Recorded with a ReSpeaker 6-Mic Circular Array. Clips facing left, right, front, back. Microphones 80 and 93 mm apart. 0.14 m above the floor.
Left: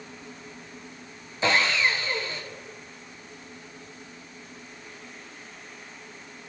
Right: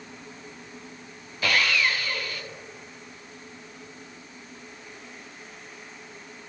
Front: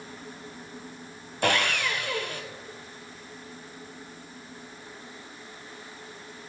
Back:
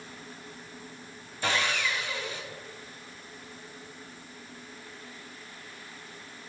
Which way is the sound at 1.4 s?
25° left.